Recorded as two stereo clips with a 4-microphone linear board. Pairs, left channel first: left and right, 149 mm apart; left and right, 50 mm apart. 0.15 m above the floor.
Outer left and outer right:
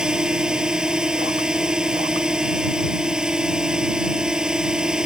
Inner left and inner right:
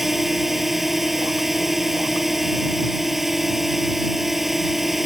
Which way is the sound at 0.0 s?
5° right (ahead or behind).